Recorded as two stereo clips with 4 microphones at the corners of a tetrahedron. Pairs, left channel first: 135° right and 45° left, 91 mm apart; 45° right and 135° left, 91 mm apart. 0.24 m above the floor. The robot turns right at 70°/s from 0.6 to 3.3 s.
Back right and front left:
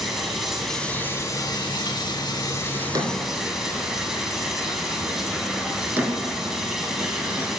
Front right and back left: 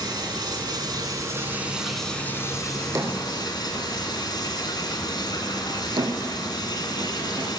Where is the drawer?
70° left, 1.2 m; by 7.5 s 110° left, 1.2 m.